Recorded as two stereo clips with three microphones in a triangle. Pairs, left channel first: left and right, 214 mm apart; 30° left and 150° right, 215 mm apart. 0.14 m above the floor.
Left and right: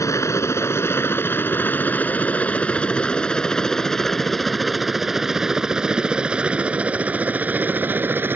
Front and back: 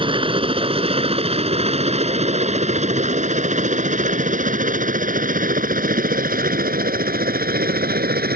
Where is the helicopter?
160° left; by 8.4 s 165° right.